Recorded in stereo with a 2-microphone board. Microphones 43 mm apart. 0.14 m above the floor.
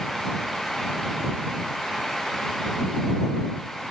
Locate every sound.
Only background noise.